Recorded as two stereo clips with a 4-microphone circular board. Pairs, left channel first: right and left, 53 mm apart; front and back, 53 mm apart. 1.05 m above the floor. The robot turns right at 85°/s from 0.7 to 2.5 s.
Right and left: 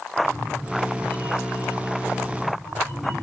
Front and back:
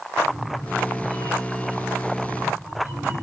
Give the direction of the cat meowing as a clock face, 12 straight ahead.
1 o'clock.